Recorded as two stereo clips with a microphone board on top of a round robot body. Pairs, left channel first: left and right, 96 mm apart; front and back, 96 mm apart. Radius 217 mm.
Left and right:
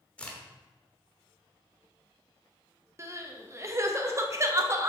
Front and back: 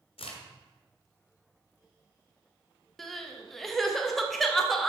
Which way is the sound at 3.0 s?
85° right.